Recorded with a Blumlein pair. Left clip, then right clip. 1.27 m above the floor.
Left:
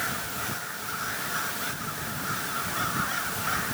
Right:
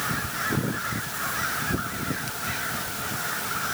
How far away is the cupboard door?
No cupboard door in this recording.